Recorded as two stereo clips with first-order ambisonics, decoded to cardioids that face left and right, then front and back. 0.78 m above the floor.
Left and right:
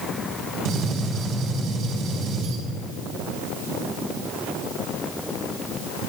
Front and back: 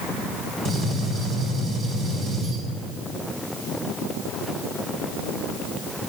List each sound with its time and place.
0.7 s a gunshot: 105° right, 1.6 m